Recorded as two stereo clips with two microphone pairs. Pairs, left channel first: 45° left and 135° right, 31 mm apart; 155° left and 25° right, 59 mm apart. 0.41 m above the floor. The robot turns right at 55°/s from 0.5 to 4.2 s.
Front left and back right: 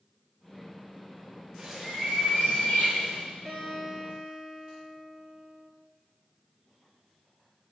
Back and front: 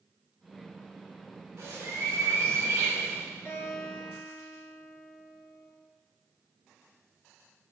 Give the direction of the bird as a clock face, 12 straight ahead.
2 o'clock.